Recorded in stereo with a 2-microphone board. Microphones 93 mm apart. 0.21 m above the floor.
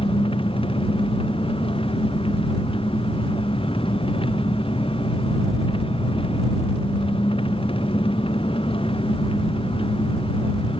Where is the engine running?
70° left (ahead or behind).